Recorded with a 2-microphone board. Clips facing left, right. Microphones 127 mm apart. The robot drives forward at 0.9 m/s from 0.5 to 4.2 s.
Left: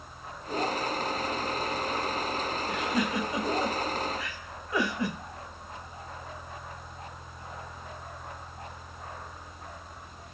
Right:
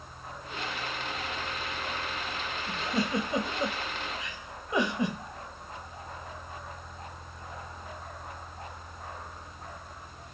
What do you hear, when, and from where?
2.7 s a giggle: 30° right (ahead or behind), 1.6 m; by 5.2 s 20° right (ahead or behind), 2.5 m